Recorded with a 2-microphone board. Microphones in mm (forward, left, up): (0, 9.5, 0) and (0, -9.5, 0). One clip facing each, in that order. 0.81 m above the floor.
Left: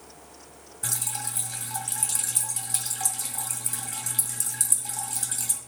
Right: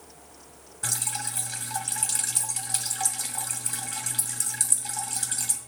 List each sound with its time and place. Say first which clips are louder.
0.8 s dripping: right 1 dB; 25° right (ahead or behind), 2.5 m